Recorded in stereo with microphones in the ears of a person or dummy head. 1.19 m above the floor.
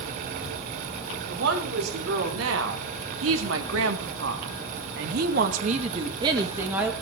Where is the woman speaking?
75° right (ahead or behind), 5 m; by 6.9 s 10° right (ahead or behind), 2.0 m.